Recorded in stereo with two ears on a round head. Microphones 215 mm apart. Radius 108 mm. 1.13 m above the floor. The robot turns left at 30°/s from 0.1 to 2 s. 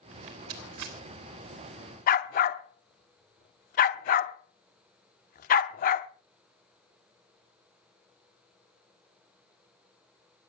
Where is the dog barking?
35° left (ahead or behind), 0.8 m.